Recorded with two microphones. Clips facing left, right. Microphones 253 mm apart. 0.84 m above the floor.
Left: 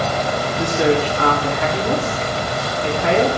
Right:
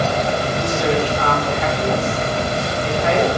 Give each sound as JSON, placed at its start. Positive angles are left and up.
{"t": 0.6, "sound": "a woman speaking", "side_deg": 70, "distance_m": 1.8}